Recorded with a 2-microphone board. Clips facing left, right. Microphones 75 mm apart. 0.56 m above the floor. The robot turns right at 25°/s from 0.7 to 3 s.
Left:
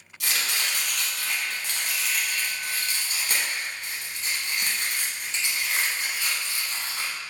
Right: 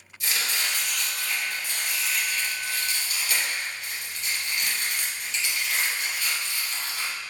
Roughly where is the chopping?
Left.